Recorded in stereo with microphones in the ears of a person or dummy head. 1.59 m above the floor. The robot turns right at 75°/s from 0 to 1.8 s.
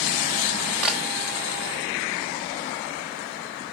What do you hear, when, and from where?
0.8 s a camera shutter: 5° left (ahead or behind), 0.9 m; by 1.0 s centre (ahead or behind), 0.9 m